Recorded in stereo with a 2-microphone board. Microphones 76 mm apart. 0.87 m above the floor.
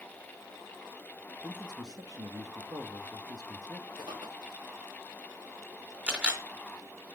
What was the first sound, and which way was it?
A man speaking, 60° right (ahead or behind).